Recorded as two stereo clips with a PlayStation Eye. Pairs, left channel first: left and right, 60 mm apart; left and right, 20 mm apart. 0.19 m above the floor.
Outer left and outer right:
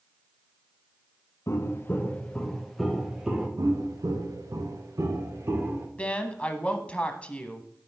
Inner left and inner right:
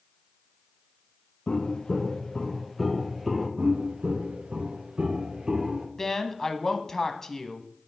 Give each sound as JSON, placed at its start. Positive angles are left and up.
{"t": 1.5, "sound": "footsteps", "side_deg": 50, "distance_m": 1.6}
{"t": 3.6, "sound": "footsteps", "side_deg": -75, "distance_m": 2.0}
{"t": 6.0, "sound": "a woman speaking", "side_deg": 20, "distance_m": 1.0}